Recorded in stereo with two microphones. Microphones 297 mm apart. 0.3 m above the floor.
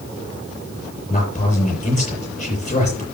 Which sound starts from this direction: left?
A man speaking, at 1.1 s.